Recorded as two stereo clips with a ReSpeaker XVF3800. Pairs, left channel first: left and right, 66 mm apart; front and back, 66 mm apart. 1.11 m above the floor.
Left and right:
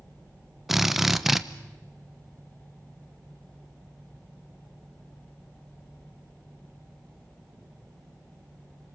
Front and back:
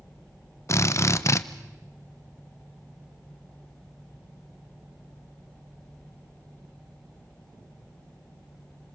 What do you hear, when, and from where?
0.7 s a drill: 5° right, 1.0 m